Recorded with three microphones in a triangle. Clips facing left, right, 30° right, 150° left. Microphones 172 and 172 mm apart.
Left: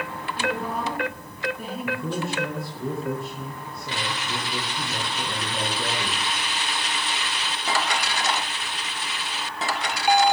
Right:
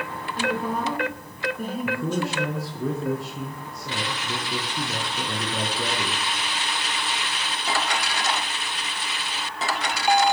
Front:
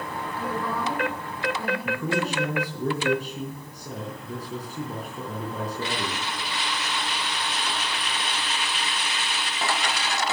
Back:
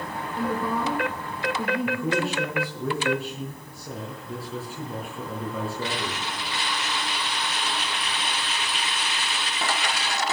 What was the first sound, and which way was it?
A woman speaking, 140° right.